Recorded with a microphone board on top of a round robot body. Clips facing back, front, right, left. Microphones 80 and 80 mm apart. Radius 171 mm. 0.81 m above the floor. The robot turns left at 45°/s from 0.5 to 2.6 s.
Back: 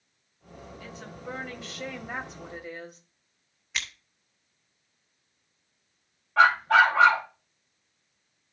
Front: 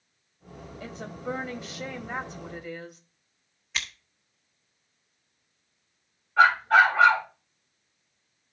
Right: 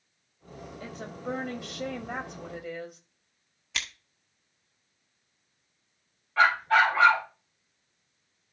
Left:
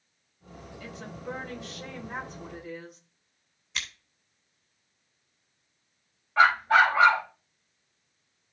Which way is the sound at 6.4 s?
165° left.